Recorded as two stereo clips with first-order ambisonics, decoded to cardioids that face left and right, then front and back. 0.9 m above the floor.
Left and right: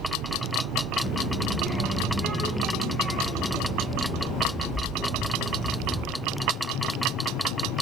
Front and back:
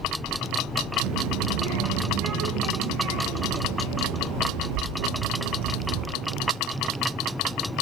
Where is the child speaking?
170° left, 9 m; by 6.0 s 165° left, 14 m.